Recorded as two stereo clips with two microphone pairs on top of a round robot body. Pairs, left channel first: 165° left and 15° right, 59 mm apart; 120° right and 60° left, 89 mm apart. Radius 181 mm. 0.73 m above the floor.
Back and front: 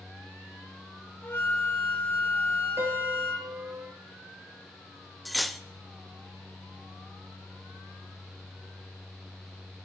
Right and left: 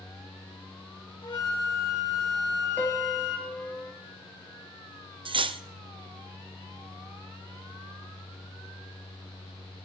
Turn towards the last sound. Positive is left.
turn(degrees=75)